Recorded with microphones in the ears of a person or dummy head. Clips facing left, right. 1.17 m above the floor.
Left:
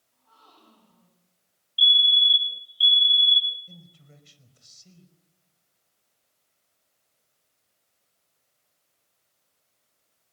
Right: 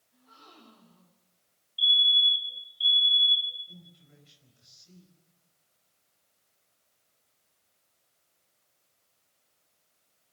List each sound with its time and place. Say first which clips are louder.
0.1 s a gasp: right 3 dB; 25° right (ahead or behind), 8 m
1.8 s a fire alarm: left 4 dB; 40° left (ahead or behind), 1.4 m
3.7 s a man speaking: left 2 dB; 80° left, 4.5 m